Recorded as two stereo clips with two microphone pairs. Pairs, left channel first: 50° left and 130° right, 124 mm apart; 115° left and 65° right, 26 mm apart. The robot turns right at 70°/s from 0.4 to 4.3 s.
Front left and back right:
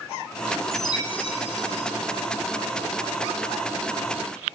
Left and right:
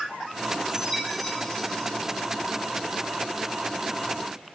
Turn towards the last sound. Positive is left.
turn(degrees=-120)